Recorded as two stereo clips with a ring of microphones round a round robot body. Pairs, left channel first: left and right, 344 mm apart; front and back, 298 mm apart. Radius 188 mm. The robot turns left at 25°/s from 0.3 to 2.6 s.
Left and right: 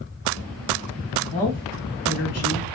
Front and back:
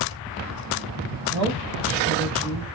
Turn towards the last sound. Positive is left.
turn(degrees=140)